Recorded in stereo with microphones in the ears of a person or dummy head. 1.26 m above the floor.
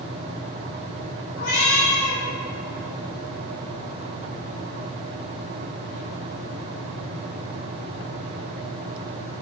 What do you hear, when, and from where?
1.4 s a cat meowing: 55° left (ahead or behind), 4.5 m